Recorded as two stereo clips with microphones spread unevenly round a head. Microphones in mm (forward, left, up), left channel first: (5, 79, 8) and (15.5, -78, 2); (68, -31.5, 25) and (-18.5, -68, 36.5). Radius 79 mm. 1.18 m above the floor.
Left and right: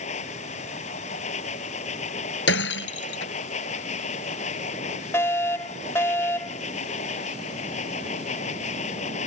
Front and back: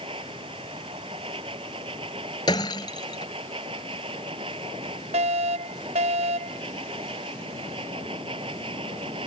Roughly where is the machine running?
Behind left.